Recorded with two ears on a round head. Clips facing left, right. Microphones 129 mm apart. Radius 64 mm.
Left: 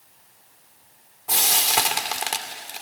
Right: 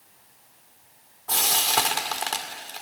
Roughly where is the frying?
Centre.